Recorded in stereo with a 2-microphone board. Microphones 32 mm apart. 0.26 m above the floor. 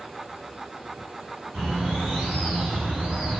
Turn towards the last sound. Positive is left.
turn(degrees=0)  # may be behind; listen again after turning